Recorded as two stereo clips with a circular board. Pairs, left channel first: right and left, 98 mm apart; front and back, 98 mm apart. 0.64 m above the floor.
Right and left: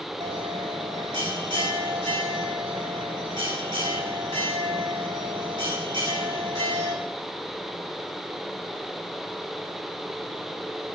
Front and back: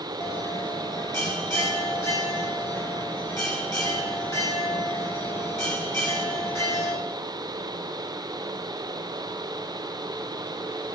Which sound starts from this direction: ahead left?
A bell, at 0.2 s.